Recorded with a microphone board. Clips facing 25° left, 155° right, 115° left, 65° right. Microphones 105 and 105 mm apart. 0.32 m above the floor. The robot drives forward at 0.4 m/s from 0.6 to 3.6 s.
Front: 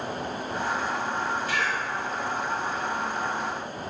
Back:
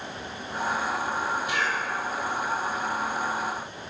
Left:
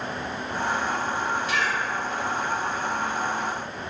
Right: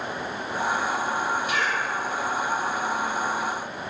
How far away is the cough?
About 1.3 m.